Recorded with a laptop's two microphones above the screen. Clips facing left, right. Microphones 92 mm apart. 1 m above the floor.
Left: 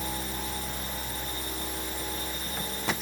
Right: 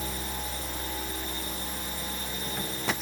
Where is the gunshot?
I don't hear a gunshot.